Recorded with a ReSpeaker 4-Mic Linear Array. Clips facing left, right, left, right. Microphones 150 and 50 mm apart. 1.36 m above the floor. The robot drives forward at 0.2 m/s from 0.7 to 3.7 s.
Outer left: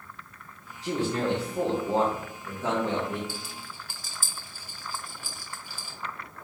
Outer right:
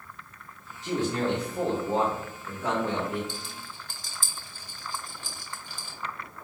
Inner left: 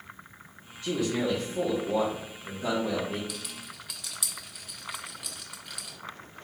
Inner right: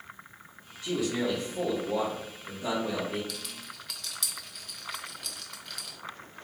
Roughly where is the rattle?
Centre.